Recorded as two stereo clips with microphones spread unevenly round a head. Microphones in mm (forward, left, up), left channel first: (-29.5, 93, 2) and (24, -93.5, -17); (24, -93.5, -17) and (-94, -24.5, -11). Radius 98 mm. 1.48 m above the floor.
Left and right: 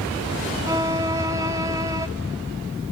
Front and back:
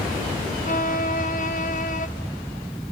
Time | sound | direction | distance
0.6 | a violin | straight ahead | 0.9 m